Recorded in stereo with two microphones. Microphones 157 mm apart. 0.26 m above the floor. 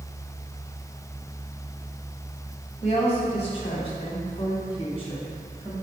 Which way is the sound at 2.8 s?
40° left (ahead or behind).